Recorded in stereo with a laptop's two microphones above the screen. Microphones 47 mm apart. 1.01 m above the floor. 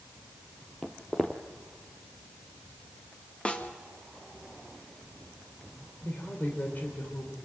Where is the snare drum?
25° left (ahead or behind), 1.8 m.